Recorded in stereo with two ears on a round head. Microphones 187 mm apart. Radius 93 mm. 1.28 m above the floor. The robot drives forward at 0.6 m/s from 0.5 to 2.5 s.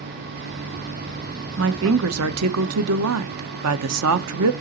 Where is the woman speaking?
55° right (ahead or behind), 1.0 m; by 4.5 s 85° right, 0.8 m.